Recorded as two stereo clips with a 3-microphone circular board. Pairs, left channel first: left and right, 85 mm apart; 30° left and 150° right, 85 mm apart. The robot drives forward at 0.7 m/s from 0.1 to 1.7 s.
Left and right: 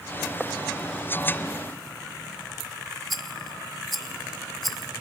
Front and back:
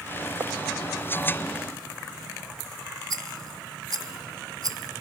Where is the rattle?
Straight behind, 0.8 m.